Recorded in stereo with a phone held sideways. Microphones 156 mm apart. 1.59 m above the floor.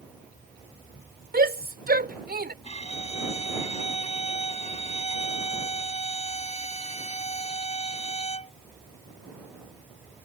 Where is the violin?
40° left (ahead or behind).